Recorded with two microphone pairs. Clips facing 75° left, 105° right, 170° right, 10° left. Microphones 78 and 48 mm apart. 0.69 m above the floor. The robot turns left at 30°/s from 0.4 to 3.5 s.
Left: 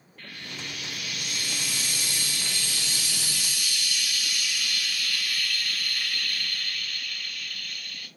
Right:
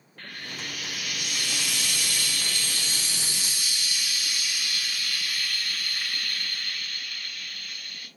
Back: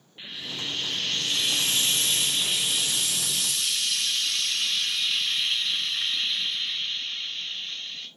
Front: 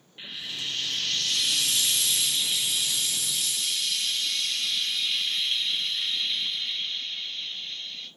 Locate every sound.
0.2 s frying: 85° right, 2 m; by 8.1 s 175° right, 2 m